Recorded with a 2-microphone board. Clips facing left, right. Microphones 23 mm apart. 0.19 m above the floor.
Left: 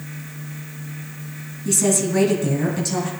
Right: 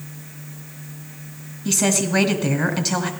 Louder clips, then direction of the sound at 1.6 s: Even; 40° right (ahead or behind).